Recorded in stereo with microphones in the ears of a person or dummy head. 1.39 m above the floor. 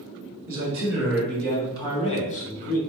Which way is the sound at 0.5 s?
15° right (ahead or behind).